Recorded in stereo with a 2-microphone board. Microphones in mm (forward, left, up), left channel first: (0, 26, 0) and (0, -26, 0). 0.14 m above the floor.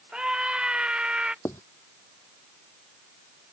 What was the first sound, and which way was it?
A scream, 15° right (ahead or behind).